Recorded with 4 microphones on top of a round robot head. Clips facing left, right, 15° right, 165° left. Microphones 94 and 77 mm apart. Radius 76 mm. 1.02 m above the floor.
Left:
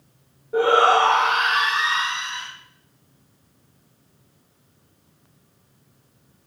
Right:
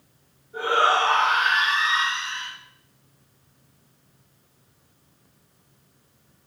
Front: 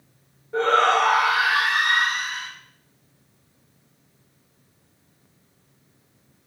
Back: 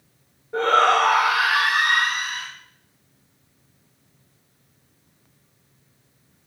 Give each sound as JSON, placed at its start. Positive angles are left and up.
{"t": 0.5, "sound": "a shout", "azimuth_deg": 85, "distance_m": 1.6}